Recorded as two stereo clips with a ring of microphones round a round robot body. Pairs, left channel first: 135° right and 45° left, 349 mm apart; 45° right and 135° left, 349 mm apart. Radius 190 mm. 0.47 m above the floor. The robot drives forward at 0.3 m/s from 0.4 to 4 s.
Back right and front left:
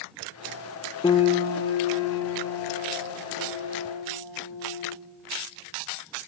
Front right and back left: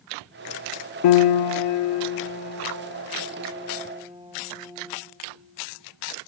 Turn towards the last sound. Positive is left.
turn(degrees=-145)